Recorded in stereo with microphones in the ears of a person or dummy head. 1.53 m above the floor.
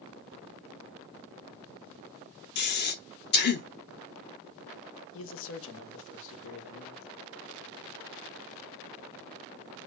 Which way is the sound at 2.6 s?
50° left (ahead or behind).